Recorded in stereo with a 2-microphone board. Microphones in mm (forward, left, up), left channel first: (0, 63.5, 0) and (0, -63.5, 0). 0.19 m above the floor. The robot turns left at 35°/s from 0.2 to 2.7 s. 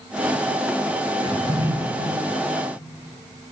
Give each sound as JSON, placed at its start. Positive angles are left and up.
{"t": 1.2, "sound": "a drawer", "side_deg": -45, "distance_m": 1.3}